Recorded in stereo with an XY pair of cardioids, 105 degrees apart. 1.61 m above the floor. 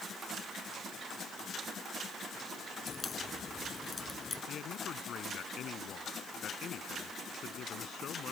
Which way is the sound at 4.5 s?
60° left.